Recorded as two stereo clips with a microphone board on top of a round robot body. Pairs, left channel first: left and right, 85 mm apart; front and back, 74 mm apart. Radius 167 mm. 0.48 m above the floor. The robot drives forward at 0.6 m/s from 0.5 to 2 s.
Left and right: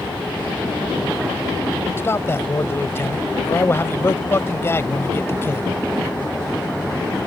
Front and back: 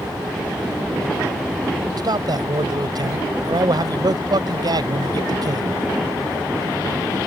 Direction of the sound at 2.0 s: 155° left.